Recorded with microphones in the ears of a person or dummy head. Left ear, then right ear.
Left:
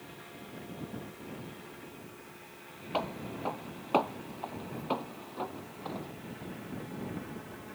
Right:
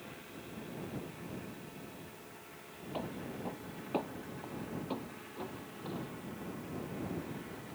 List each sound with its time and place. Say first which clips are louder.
2.9 s footsteps: left 7 dB; 45° left (ahead or behind); by 6.1 s 25° left (ahead or behind)